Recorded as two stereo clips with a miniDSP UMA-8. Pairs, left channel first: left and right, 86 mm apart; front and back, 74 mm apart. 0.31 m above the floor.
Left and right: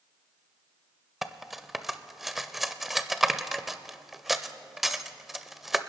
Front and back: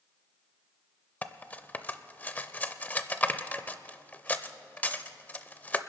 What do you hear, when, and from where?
1.2 s cutlery clinking: 5° right, 0.5 m